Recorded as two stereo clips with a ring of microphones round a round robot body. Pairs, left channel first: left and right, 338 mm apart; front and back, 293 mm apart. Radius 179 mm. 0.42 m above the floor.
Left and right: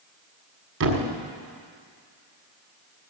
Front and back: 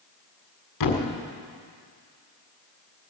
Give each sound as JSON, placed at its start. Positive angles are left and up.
{"t": 0.8, "sound": "a thud", "azimuth_deg": -35, "distance_m": 1.6}